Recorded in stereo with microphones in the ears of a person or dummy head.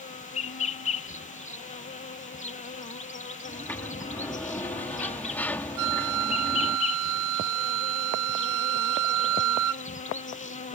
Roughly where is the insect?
Left.